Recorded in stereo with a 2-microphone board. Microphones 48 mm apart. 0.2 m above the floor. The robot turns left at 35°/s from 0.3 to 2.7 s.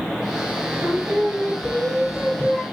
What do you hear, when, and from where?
0.8 s singing: 125° right, 3 m; by 2.6 s 170° left, 3 m